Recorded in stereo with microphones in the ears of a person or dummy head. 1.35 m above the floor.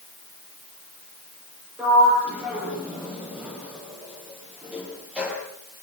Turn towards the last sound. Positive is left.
turn(degrees=-5)  # may be behind; listen again after turning